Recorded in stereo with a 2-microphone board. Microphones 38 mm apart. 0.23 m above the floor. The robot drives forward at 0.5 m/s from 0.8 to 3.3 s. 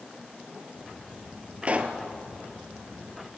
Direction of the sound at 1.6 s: 35° right (ahead or behind).